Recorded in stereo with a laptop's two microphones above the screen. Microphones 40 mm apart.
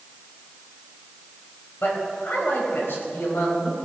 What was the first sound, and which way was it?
A man speaking, 70° left (ahead or behind).